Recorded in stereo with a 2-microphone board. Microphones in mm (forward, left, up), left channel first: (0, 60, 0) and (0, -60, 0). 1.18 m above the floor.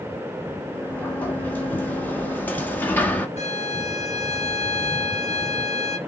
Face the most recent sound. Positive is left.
turn(degrees=65)  # may be behind; listen again after turning